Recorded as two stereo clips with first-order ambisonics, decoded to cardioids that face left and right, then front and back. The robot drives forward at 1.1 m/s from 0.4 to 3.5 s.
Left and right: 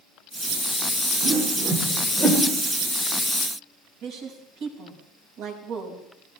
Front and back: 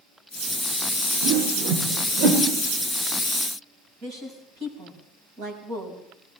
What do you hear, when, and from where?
1.2 s a whoosh: 160° right, 2.5 m; by 2.4 s 165° right, 4 m
4.0 s a woman speaking: 130° right, 5 m